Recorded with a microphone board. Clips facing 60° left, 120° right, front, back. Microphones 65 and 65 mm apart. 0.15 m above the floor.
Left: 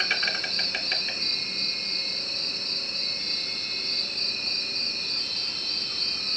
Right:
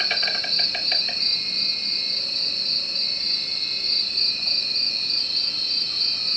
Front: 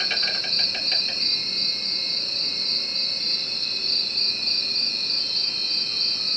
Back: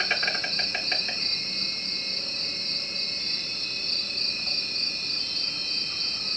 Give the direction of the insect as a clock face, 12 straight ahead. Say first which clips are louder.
Even, back 2 dB; 7 o'clock.